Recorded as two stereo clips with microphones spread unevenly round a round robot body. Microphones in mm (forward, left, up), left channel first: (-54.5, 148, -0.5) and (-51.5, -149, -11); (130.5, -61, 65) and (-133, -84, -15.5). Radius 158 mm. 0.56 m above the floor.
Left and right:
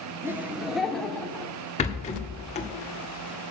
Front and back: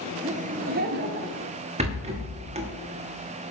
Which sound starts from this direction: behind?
Laughter, at 0.2 s.